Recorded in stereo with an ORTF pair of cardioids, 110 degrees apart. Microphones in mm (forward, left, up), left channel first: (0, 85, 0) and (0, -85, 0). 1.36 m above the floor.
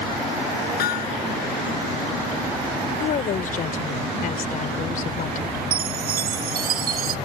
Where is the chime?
60° right.